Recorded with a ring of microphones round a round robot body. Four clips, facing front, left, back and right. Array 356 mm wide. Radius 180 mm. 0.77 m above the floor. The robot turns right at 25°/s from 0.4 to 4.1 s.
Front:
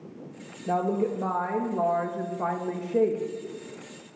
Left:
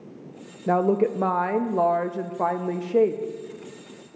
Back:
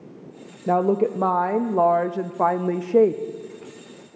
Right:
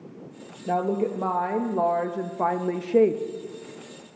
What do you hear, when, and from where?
0.7 s a woman speaking: 140° left, 0.5 m; by 3.2 s 155° right, 0.5 m